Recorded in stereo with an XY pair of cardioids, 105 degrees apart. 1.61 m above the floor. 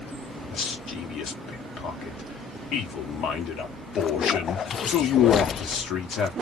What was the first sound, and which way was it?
A man speaking, 65° left.